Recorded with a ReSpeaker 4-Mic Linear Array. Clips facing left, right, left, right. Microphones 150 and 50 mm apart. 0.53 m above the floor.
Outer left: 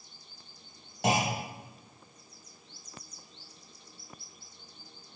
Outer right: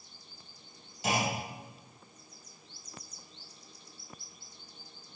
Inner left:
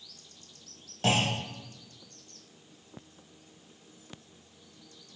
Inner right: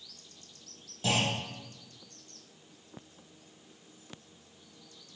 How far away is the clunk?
About 2 m.